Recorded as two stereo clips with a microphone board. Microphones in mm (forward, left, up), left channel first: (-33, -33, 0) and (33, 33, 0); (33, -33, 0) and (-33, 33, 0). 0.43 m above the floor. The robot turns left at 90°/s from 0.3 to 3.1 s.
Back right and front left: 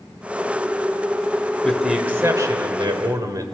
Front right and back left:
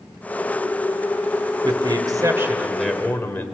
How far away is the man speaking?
About 1.7 m.